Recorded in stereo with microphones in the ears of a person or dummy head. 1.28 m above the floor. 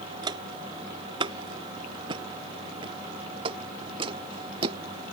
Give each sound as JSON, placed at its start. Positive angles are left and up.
{"t": 0.2, "sound": "footsteps", "side_deg": -15}